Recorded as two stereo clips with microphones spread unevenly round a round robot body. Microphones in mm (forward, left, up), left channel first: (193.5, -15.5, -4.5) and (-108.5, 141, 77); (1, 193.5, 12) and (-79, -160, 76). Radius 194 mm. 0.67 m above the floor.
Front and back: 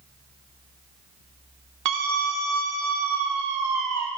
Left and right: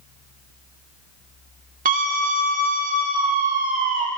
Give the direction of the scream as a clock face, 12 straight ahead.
6 o'clock.